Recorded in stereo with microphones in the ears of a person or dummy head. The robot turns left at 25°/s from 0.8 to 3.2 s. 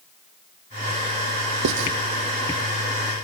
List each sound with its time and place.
1.6 s writing: 70° right (ahead or behind), 0.7 m; by 1.9 s 65° right (ahead or behind), 0.7 m